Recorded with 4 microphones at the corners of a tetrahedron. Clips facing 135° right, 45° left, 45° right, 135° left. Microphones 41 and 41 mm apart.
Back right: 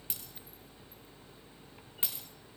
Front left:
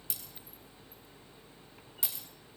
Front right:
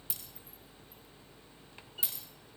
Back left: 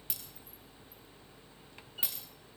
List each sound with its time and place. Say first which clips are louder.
0.1 s breaking glass: even, back left 2 dB; 175° left, 5 m